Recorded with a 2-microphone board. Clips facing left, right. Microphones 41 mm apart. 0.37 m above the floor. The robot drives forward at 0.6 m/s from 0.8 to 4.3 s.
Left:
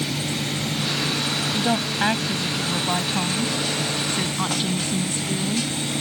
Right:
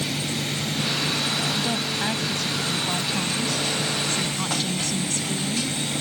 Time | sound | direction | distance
1.5 | a woman speaking | 30° left (ahead or behind) | ?